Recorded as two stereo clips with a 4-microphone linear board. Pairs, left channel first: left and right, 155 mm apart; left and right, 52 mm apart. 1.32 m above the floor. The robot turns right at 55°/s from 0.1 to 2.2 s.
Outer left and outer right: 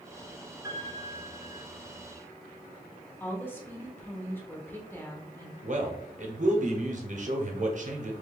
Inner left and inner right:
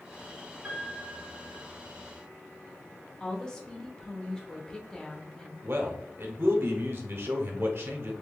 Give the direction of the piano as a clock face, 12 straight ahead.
5 o'clock.